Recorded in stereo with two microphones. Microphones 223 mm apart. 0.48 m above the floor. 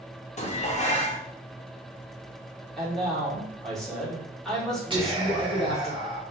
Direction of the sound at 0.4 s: 30° left (ahead or behind).